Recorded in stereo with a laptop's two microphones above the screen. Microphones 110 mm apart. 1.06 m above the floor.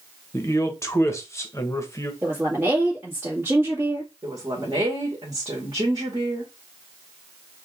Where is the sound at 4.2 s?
40° right (ahead or behind), 1.7 m.